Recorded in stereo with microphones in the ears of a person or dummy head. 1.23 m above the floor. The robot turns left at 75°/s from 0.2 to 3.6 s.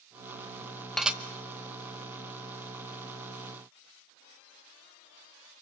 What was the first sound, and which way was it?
Dishes clattering, centre (ahead or behind).